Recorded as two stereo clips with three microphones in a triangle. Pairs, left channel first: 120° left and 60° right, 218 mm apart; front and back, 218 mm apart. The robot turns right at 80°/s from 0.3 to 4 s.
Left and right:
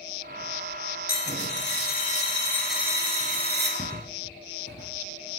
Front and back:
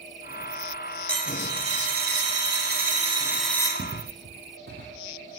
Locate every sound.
1.1 s a dropped coin: 80° left, 0.5 m; by 3.7 s 70° right, 0.5 m
3.8 s footsteps: 150° right, 0.8 m; by 5.4 s 135° left, 0.9 m